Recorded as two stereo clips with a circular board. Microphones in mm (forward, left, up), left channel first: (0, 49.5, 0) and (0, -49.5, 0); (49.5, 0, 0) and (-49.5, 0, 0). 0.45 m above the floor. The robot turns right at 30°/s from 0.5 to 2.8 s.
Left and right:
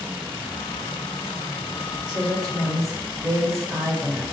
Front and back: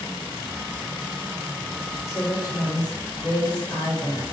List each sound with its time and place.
2.1 s a woman speaking: 55° right, 1.4 m; by 4.2 s 35° right, 1.4 m